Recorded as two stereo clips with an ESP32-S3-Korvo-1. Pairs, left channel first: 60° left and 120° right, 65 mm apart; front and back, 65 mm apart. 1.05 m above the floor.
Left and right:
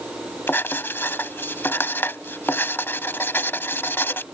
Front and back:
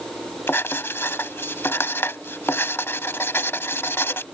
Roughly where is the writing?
Ahead left.